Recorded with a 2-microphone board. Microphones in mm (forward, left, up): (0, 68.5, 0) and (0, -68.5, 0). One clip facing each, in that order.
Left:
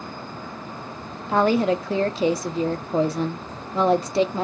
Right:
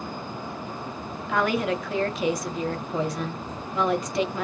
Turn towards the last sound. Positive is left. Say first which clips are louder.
# left 5 dB
turn(degrees=30)  # may be behind; listen again after turning